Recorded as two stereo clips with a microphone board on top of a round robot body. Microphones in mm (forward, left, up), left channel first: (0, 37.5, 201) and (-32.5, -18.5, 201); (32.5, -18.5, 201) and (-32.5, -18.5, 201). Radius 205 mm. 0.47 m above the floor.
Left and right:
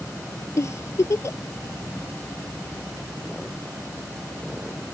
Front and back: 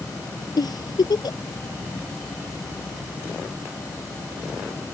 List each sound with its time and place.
0.6 s a giggle: 15° left